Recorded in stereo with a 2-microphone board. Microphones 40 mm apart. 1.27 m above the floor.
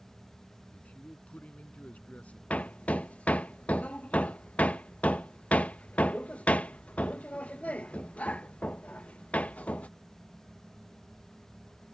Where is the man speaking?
35° left (ahead or behind).